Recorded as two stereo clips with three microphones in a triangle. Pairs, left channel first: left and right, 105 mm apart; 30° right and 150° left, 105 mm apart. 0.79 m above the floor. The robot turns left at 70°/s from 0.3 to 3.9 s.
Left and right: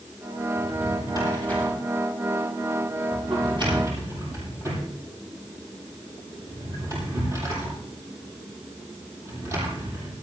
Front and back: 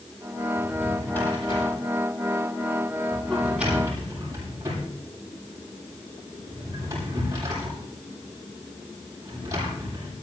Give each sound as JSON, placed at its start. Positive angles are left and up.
{"t": 0.6, "sound": "a drawer", "azimuth_deg": 80, "distance_m": 8.0}